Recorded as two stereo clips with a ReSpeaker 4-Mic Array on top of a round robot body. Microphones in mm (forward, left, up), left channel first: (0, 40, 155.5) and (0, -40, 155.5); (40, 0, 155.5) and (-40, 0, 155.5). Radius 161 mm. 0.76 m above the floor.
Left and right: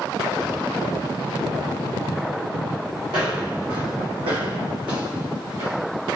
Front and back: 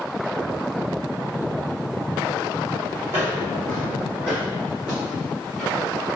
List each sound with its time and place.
3.1 s footsteps: 120° right, 1.4 m; by 5.9 s 95° right, 2.5 m